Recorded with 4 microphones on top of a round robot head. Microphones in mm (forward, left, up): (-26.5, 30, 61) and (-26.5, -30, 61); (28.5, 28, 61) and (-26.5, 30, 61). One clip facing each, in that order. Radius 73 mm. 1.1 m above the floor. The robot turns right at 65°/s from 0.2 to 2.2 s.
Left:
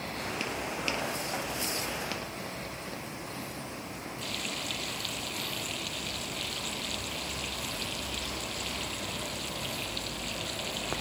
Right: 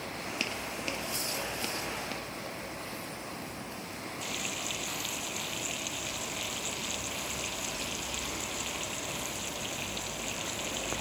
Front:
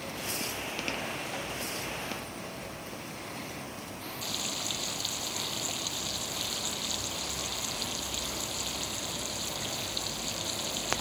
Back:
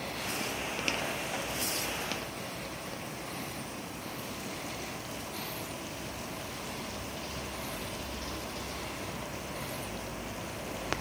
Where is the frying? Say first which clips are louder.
Left 1 dB, front 2 dB; 10° right.